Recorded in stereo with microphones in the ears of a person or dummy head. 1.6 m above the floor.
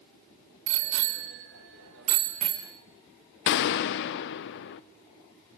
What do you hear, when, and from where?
0.7 s a bicycle bell: 65° right (ahead or behind), 2.5 m; by 2.7 s 5° right (ahead or behind), 1.2 m
3.5 s a gunshot: 55° left (ahead or behind), 0.8 m